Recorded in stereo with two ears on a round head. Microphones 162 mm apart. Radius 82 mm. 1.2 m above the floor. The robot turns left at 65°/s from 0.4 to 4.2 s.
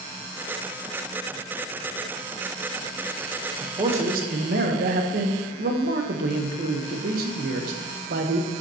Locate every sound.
3.6 s a man speaking: 15° right, 0.9 m; by 8.5 s 55° right, 0.9 m